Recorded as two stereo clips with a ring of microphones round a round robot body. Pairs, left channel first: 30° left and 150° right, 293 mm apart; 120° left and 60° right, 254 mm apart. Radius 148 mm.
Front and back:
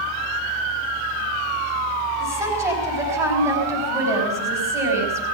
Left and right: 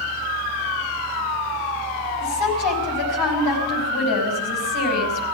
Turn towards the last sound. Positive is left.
turn(degrees=130)